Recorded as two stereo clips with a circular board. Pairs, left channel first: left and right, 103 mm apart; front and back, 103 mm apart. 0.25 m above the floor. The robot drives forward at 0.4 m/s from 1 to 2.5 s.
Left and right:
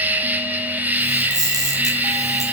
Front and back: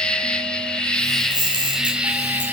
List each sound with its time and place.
0.0 s an insect: 60° right, 1.3 m; by 2.5 s 135° right, 1.3 m
1.2 s a camera shutter: 135° right, 4 m; by 2.4 s 140° right, 4.5 m